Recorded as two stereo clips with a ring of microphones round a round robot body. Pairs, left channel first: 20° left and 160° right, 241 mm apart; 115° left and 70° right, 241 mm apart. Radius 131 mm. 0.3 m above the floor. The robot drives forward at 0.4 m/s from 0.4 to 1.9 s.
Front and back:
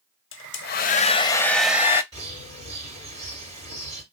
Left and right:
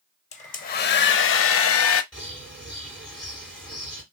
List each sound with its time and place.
0.3 s a hair dryer: 55° left, 0.6 m; by 2.0 s 125° left, 0.6 m
2.1 s a bird: 160° right, 2.5 m